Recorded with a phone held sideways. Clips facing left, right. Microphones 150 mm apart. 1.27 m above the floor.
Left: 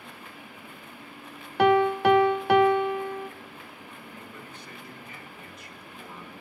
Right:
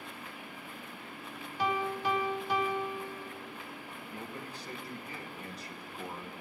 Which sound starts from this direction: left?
A piano, at 1.6 s.